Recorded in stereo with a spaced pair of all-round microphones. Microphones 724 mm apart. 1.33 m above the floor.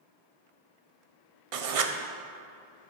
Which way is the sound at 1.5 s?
50° right (ahead or behind).